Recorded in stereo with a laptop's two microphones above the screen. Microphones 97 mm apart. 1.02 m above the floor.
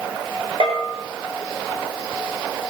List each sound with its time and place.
0.6 s a bell: 75° right (ahead or behind), 4.5 m